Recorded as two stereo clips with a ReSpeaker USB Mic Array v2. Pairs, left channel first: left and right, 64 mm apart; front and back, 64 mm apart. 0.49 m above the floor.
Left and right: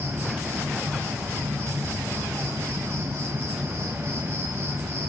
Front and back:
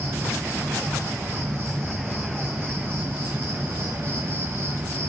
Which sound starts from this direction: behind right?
An insect, at 0.0 s.